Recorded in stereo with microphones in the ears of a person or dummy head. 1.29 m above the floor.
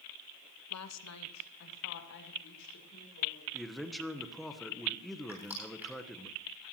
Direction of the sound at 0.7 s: 80° left.